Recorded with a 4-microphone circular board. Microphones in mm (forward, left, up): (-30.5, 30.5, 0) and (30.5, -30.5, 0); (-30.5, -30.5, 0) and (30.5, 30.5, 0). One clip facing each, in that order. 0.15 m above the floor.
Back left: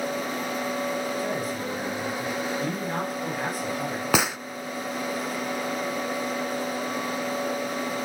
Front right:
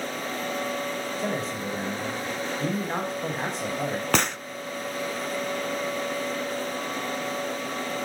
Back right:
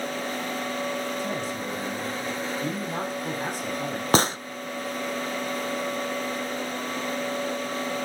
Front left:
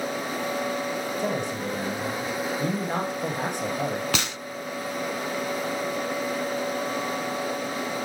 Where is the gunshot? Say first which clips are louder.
Back left 2 dB, back right 8 dB; 145° right, 0.5 m.